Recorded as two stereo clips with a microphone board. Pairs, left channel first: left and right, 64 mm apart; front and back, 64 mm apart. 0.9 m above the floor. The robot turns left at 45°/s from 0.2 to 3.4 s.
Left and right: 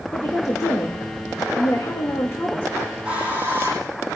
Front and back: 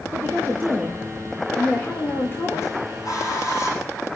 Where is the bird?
5° right, 8.5 m; by 3.9 s 30° right, 8.5 m.